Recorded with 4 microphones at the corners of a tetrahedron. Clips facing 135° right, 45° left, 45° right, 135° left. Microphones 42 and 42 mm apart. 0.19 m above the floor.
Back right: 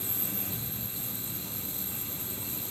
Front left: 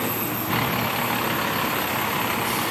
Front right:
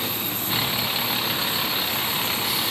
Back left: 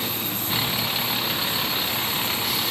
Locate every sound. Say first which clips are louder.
0.0 s a vehicle: front left 14 dB, even; 45° left